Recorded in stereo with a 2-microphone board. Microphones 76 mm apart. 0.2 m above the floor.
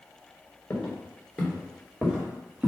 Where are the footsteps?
25° left (ahead or behind), 1.7 m; by 2.7 s 15° right (ahead or behind), 2 m.